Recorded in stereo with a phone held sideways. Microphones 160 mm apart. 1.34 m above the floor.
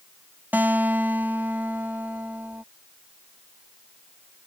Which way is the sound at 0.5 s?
10° right (ahead or behind).